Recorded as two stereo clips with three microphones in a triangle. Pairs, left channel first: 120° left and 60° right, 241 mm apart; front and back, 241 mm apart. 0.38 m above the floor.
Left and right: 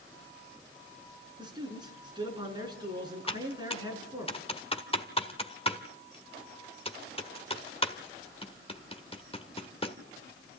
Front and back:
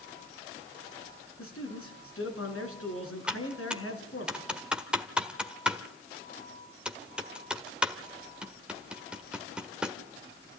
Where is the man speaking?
10° left, 5 m.